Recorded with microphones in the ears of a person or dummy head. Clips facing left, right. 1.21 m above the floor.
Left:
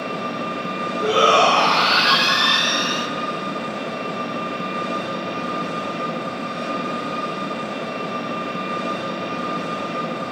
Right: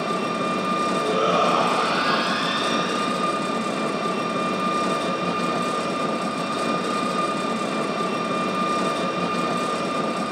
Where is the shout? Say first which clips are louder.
Left 6 dB; 85° left, 0.6 m.